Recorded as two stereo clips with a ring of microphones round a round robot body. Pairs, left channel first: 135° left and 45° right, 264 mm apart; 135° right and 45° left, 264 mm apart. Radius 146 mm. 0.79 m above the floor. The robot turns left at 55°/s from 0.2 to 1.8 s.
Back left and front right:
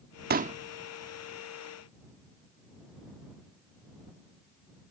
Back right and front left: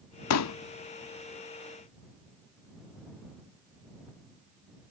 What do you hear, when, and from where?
0.3 s a pop: 100° right; by 0.6 s 115° right